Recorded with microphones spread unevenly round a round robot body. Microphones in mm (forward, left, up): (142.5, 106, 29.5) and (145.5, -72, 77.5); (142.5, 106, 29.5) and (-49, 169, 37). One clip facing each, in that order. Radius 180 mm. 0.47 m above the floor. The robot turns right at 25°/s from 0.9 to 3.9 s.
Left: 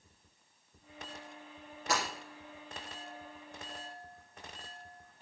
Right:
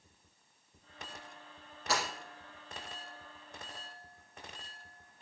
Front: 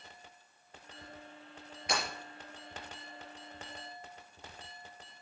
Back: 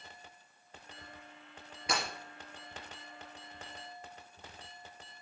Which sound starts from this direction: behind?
Breaking glass, at 1.9 s.